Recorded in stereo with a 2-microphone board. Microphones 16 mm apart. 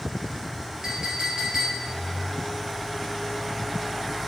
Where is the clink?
45° right (ahead or behind), 1.7 m.